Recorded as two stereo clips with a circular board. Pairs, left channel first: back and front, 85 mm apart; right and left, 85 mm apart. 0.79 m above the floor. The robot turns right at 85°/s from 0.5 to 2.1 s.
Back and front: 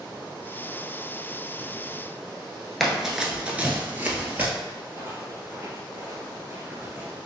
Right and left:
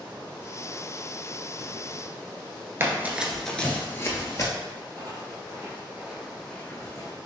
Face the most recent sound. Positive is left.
turn(degrees=-70)